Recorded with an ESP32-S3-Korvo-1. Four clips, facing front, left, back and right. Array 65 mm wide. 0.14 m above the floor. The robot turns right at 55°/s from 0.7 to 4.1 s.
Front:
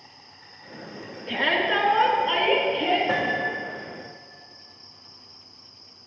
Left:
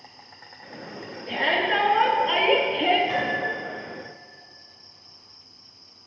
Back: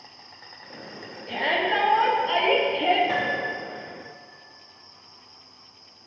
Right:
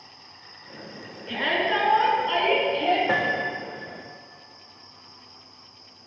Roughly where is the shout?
Ahead.